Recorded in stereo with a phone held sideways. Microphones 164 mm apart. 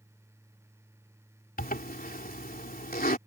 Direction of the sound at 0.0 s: 15° right (ahead or behind).